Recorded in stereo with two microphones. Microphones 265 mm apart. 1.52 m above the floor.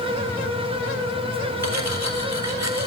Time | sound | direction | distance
1.6 | cutlery clinking | 80° right | 4 m